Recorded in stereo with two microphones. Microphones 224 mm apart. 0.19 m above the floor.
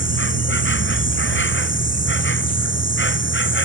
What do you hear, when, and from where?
0.0 s an insect: 60° left (ahead or behind)